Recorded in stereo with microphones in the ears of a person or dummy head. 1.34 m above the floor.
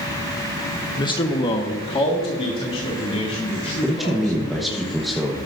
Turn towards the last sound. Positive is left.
turn(degrees=-5)  # may be behind; listen again after turning